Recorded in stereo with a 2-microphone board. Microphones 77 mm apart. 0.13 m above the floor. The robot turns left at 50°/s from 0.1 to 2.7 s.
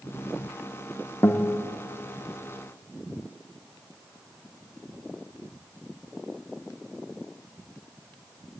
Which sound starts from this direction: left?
A guitar, at 1.2 s.